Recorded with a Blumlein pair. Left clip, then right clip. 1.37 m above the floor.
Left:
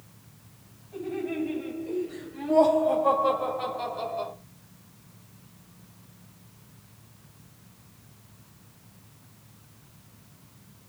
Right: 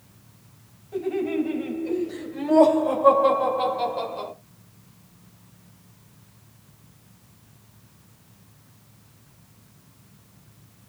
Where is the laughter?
30° right, 7 m; by 4.3 s 35° right, 5 m.